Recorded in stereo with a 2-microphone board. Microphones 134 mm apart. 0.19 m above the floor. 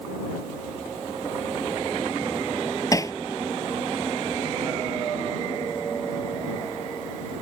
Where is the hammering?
25° left (ahead or behind).